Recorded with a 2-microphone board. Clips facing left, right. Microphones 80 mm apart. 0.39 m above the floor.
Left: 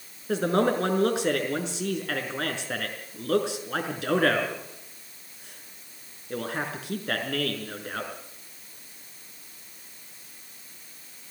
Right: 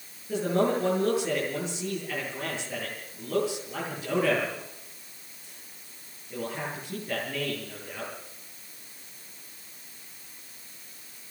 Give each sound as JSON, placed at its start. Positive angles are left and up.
{"t": 0.3, "sound": "a man speaking", "side_deg": 80, "distance_m": 5.5}